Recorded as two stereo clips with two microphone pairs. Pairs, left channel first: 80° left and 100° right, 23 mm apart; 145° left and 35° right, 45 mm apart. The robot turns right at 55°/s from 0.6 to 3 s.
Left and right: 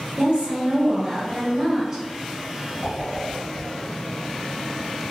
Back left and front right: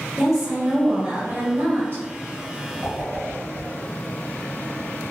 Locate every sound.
0.2 s a woman speaking: 125° right, 1.0 m; by 2.0 s 45° right, 1.0 m
2.8 s a whoosh: 80° right, 1.7 m; by 3.9 s 70° right, 1.7 m